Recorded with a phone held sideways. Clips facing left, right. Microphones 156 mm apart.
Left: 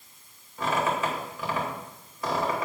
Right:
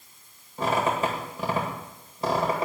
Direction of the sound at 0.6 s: 30° right (ahead or behind).